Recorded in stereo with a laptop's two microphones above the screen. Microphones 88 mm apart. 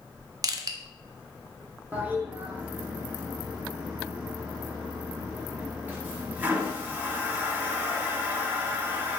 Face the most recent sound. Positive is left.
turn(degrees=-20)  # may be behind; listen again after turning